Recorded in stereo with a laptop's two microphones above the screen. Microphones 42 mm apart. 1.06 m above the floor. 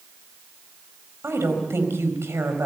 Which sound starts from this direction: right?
A woman speaking, at 1.2 s.